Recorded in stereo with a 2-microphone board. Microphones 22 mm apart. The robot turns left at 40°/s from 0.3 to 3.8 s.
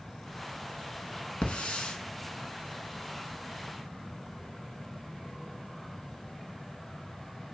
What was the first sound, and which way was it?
A hiss, 70° left (ahead or behind).